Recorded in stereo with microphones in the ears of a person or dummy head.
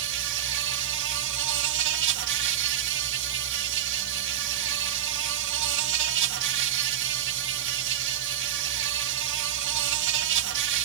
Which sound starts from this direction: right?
An insect, at 0.0 s.